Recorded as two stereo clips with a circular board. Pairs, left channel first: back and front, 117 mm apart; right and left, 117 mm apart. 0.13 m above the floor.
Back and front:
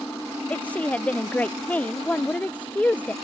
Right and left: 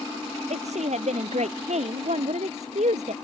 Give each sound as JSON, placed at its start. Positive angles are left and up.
{"t": 0.5, "sound": "a woman speaking", "azimuth_deg": 100}